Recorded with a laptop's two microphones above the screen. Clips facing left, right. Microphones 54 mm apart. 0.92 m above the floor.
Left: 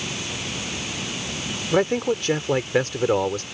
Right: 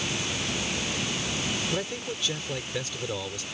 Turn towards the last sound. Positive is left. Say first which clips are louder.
# left 11 dB
turn(degrees=55)  # may be behind; listen again after turning